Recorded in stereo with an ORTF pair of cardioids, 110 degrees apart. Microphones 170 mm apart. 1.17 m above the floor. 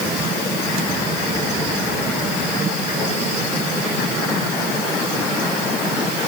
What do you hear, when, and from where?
Only background noise.